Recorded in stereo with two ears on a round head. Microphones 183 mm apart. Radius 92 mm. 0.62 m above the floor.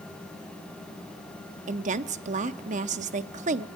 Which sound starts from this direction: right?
A woman speaking, at 1.7 s.